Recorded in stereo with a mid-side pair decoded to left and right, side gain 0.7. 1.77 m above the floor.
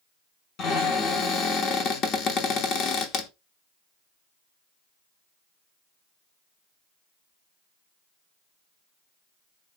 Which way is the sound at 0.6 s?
45° left.